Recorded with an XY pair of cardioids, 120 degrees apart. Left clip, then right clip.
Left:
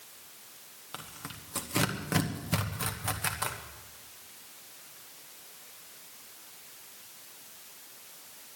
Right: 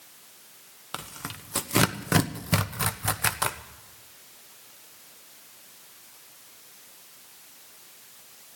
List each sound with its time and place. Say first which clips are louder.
0.9 s tearing paper: right 6 dB; 40° right, 1.0 m